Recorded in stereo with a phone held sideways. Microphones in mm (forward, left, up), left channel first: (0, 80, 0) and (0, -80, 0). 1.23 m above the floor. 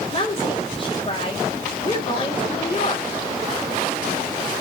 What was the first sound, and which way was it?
A woman speaking, 35° left (ahead or behind).